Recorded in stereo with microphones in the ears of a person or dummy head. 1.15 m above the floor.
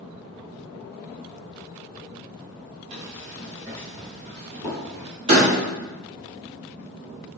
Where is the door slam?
35° right (ahead or behind), 1.7 m.